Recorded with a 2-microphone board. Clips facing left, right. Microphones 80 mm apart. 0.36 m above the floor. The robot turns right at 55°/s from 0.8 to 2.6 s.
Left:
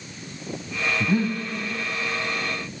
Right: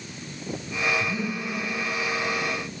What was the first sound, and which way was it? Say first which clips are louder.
Breathing: left 6 dB; 65° left (ahead or behind).